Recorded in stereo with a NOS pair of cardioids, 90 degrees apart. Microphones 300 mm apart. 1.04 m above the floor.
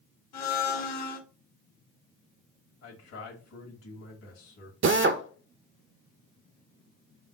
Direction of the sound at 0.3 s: 60° left.